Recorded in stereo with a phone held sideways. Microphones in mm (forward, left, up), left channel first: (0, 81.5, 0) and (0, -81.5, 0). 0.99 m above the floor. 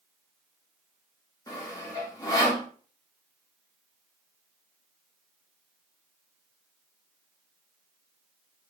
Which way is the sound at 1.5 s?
25° left (ahead or behind).